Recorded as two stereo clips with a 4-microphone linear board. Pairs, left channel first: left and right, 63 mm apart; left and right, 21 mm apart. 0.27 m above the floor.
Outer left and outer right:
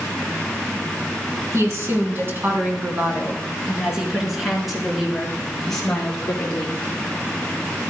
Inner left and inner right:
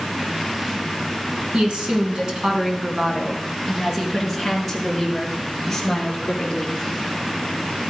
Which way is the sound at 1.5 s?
50° right (ahead or behind).